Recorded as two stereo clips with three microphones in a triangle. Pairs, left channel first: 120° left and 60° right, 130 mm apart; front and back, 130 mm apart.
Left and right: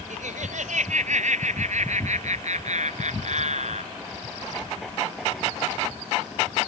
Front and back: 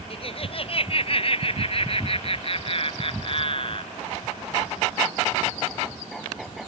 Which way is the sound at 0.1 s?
45° right.